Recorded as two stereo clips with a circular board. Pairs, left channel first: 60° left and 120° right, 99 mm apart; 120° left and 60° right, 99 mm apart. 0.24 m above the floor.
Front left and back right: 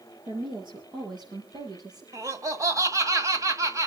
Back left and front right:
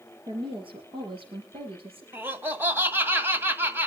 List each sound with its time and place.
0.3 s a woman speaking: 90° right, 4 m; by 2.0 s 75° right, 6.5 m
2.1 s laughter: 110° right, 1.7 m